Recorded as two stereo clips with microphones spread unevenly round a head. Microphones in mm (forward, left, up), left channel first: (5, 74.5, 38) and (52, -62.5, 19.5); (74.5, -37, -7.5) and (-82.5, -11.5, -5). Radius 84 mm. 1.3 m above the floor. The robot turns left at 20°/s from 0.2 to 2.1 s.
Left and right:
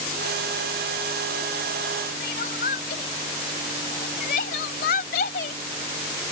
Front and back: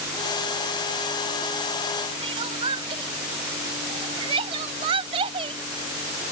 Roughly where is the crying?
Behind left.